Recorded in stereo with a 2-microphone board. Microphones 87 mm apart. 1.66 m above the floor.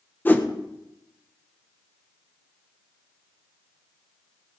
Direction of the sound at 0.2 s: 20° left (ahead or behind).